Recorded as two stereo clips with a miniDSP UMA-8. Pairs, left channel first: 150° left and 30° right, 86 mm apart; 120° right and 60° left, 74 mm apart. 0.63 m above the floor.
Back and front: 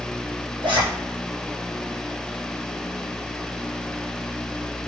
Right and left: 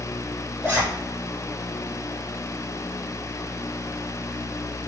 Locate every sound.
0.6 s a zipper: 5° right, 5 m